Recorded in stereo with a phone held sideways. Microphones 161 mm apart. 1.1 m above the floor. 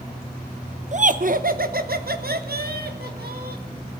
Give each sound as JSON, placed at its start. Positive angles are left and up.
{"t": 0.9, "sound": "laughter", "side_deg": -50, "distance_m": 0.6}